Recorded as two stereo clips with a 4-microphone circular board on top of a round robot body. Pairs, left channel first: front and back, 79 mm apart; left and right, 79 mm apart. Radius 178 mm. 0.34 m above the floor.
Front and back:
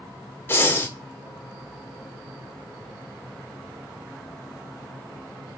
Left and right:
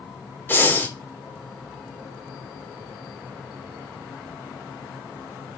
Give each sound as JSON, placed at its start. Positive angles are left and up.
{"t": 0.5, "sound": "breathing", "azimuth_deg": 45, "distance_m": 1.2}